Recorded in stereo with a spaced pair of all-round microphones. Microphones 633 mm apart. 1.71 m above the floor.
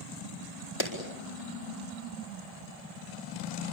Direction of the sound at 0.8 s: 35° left (ahead or behind).